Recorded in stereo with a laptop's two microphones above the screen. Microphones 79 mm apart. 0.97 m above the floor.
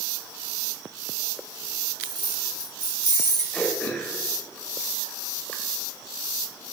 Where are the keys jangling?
85° right, 2 m; by 3.4 s 55° right (ahead or behind), 1.5 m.